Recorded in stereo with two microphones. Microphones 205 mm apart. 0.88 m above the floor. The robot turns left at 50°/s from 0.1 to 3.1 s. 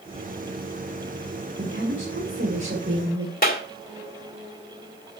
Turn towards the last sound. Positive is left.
turn(degrees=45)  # may be behind; listen again after turning